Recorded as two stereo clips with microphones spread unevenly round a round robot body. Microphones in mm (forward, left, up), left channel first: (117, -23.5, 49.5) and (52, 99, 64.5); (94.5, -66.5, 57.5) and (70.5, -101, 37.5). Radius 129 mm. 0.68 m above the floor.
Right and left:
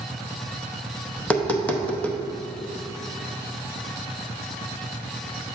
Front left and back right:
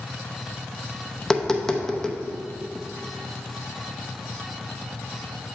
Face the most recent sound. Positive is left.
turn(degrees=-105)